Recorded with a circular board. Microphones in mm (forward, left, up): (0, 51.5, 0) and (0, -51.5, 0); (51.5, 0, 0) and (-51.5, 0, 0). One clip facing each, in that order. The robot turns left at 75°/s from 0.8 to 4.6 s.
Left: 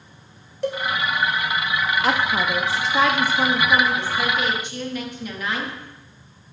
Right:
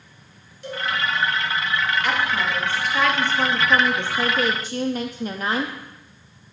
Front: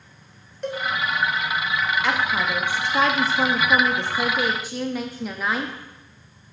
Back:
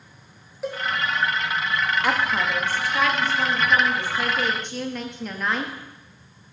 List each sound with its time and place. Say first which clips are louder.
0.6 s a cowbell: left 7 dB, front 1 dB; 95° left, 1.9 m; by 0.8 s 90° left, 1.9 m
2.0 s a woman speaking: left 2 dB, even; 110° left, 0.9 m; by 5.7 s 80° right, 0.9 m